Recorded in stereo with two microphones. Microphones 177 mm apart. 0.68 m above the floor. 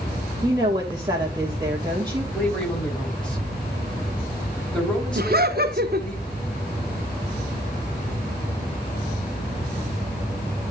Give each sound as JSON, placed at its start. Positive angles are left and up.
{"t": 0.4, "sound": "a woman speaking", "side_deg": -25, "distance_m": 1.8}
{"t": 2.3, "sound": "a man speaking", "side_deg": 5, "distance_m": 3.5}
{"t": 5.2, "sound": "laughter", "side_deg": -60, "distance_m": 1.2}